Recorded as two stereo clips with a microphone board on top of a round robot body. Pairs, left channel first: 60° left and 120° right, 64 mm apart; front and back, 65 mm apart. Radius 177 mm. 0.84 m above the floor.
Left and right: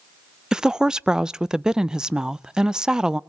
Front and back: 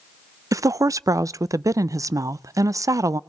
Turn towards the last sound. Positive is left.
turn(degrees=160)